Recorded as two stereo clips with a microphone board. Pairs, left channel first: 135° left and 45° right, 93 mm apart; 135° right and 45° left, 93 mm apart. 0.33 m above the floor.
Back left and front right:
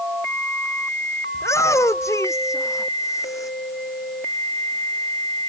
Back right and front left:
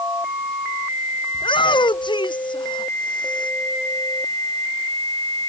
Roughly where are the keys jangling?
No keys jangling in this recording.